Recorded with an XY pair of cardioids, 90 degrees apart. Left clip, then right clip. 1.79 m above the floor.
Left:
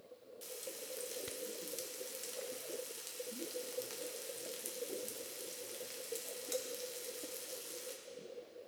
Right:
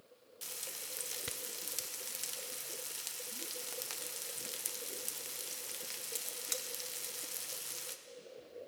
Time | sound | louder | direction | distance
0.4 | frying | right 2 dB | 55° right | 0.9 m